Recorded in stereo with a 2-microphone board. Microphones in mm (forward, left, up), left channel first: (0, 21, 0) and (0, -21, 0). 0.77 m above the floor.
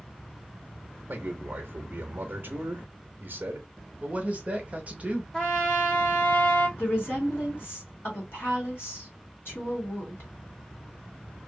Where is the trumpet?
20° left (ahead or behind), 1.0 m.